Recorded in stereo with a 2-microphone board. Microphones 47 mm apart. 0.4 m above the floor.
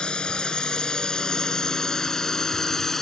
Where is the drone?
20° left (ahead or behind); by 3.0 s 5° left (ahead or behind).